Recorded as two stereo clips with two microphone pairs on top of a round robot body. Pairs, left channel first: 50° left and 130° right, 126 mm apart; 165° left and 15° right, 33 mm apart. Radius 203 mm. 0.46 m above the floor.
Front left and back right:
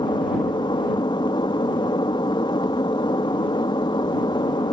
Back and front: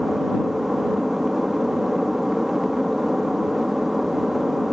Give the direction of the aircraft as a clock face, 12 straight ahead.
10 o'clock.